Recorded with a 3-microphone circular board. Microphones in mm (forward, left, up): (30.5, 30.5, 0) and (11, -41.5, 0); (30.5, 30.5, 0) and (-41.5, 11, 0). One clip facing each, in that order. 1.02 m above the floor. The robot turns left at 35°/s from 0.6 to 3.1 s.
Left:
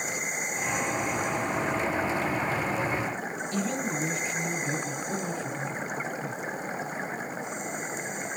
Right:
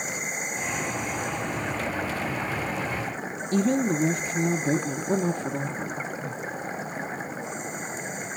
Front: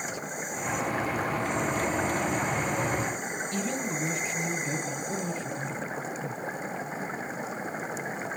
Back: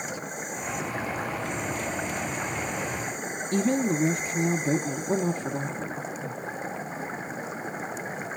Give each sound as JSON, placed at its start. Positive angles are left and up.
{"t": 3.5, "sound": "a woman speaking", "azimuth_deg": -130, "distance_m": 0.9}